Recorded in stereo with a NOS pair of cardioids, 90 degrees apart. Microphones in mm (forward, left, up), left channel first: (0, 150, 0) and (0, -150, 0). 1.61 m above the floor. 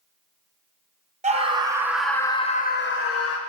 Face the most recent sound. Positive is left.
turn(degrees=60)